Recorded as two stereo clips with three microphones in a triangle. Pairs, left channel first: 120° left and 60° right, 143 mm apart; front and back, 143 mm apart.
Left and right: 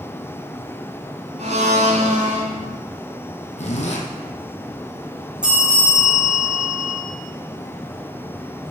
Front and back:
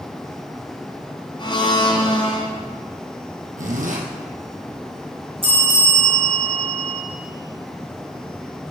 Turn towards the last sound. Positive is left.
turn(degrees=-140)